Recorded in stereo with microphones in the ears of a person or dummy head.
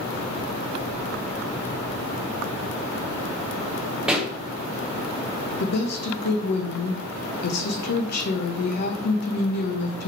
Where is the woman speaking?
55° left (ahead or behind), 0.9 m.